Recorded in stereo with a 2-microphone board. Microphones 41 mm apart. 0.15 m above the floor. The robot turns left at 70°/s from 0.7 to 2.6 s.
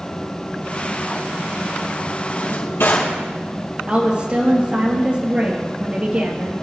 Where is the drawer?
55° left (ahead or behind), 3 m; by 3.2 s 70° left (ahead or behind), 3 m.